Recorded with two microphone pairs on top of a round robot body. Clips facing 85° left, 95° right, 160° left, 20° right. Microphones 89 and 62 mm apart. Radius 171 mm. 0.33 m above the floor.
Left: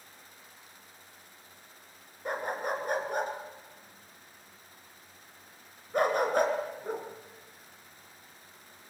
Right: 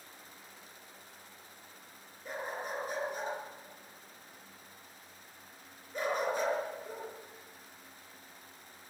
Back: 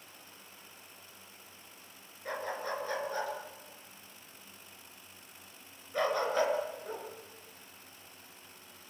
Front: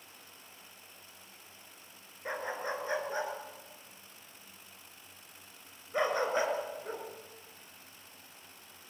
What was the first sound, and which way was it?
A dog barking, 55° left.